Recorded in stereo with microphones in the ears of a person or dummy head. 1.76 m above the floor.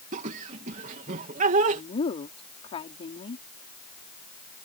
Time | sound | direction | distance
0.1 | laughter | 40° right (ahead or behind) | ?
1.7 | a woman speaking | 35° left (ahead or behind) | ?